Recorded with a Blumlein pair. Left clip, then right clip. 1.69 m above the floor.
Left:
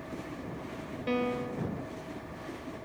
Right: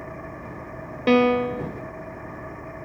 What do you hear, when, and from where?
0.0 s an engine running: 65° right
1.1 s a piano: 30° right